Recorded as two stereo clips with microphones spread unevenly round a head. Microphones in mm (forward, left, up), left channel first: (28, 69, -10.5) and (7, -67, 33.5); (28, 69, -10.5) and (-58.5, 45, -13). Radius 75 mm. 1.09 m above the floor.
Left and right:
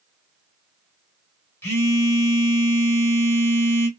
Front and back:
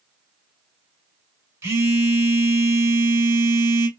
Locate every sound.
1.6 s a phone buzzing: straight behind, 0.9 m